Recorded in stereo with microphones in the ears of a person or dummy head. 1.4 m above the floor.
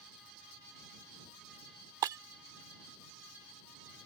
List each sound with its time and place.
2.0 s breaking glass: 20° right (ahead or behind)